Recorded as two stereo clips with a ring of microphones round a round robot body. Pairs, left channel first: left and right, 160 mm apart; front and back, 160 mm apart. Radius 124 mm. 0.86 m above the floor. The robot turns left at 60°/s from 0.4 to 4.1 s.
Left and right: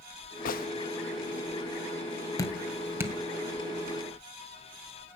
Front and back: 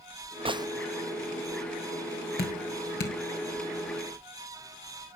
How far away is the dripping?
About 2.5 m.